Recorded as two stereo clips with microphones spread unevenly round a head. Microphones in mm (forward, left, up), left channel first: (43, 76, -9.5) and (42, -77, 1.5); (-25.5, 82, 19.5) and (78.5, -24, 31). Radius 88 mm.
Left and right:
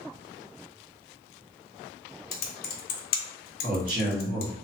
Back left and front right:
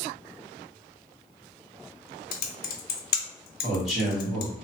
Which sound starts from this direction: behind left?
Typing on a keyboard, at 2.3 s.